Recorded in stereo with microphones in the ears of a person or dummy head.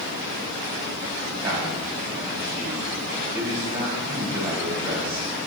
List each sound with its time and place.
1.4 s a man speaking: 15° right (ahead or behind), 2 m